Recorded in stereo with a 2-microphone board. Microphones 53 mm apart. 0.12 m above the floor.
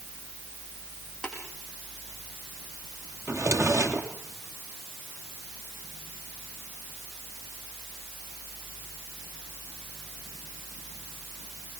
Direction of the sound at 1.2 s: 15° left (ahead or behind).